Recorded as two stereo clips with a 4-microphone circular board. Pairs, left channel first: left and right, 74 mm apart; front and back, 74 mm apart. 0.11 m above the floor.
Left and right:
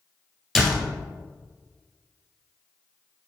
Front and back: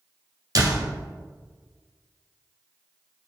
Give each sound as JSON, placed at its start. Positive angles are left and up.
{"t": 0.6, "sound": "a door slam", "azimuth_deg": 180, "distance_m": 1.5}